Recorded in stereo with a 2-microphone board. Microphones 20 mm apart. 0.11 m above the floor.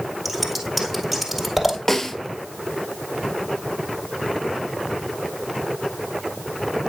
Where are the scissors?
5° right (ahead or behind), 1.7 m.